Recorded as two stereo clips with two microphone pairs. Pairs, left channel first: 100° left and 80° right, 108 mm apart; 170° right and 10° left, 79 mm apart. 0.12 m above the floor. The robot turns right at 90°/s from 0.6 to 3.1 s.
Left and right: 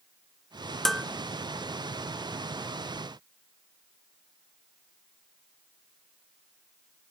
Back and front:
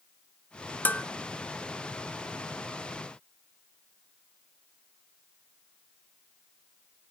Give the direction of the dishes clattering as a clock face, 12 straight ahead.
6 o'clock.